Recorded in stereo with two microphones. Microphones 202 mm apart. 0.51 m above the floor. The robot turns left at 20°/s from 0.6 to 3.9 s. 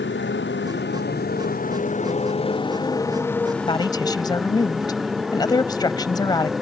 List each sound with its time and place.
0.0 s a motorcycle: 65° left; by 6.6 s straight ahead
3.7 s a woman speaking: 25° left (ahead or behind); by 6.5 s 20° left (ahead or behind)